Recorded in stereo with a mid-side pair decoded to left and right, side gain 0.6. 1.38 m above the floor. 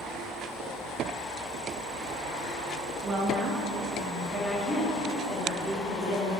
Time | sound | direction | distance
3.0 | a woman speaking | 45° right | 1.4 m